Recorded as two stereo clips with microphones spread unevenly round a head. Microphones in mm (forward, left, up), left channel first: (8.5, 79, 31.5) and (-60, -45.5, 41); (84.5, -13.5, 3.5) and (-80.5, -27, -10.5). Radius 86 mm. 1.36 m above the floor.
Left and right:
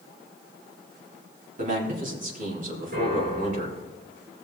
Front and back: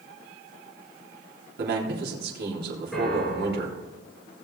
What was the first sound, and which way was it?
A man speaking, 150° right.